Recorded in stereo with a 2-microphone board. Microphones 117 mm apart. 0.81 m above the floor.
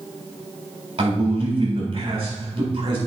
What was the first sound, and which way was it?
A man speaking, 60° right (ahead or behind).